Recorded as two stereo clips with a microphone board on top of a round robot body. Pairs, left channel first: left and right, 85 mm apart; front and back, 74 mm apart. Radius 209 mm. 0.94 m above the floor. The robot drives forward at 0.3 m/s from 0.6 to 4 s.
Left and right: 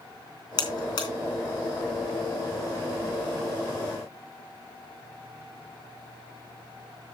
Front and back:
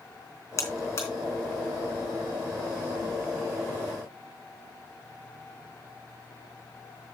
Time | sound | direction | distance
0.6 | a buzzer | 55° left | 3 m